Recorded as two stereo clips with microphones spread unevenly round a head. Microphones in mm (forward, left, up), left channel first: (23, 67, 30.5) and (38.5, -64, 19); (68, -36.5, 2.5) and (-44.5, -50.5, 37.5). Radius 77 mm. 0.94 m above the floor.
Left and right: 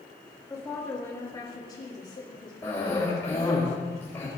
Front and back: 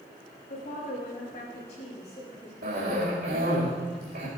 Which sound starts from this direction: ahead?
A woman speaking, at 0.5 s.